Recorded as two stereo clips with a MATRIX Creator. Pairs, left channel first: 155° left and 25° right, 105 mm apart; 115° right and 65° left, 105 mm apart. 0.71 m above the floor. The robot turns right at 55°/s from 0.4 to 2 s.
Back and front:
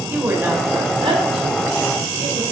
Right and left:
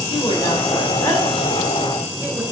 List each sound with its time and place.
0.1 s a woman speaking: 90° right, 3 m; by 2.4 s straight ahead, 3 m